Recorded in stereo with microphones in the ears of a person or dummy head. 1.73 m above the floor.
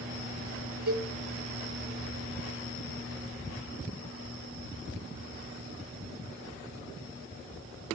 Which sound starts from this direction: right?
A cowbell, at 0.9 s.